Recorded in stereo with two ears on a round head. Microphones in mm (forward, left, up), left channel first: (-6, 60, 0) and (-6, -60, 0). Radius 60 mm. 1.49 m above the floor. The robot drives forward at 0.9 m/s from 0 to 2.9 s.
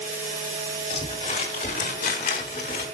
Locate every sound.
0.9 s crumpling: 45° left (ahead or behind), 2.5 m; by 2.9 s 60° left (ahead or behind), 2.0 m